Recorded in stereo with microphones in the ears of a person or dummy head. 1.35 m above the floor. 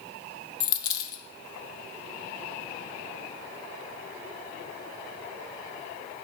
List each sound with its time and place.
0.6 s a dropped coin: 35° left (ahead or behind), 1.2 m